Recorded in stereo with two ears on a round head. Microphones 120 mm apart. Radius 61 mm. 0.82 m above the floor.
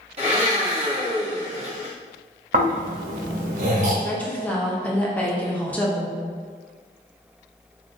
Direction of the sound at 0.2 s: 45° right (ahead or behind).